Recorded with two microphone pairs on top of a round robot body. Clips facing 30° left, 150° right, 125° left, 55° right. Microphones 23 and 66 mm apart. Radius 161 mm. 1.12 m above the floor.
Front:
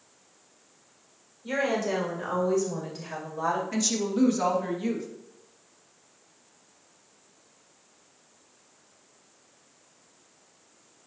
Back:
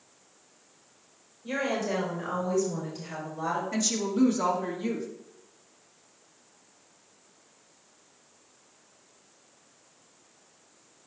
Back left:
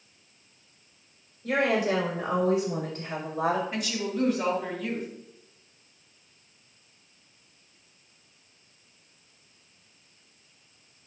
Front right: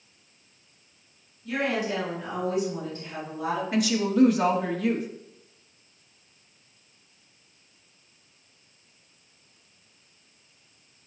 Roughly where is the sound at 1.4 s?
Left.